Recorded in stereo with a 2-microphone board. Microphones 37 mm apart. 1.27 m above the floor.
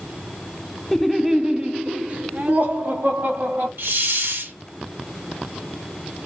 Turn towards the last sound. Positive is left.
turn(degrees=-80)